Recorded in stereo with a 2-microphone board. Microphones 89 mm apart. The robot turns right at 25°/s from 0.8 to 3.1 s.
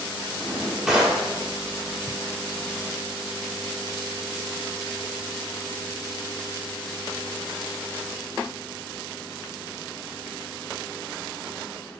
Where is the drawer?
5° right (ahead or behind), 1.6 m; by 1.2 s 15° right (ahead or behind), 1.6 m.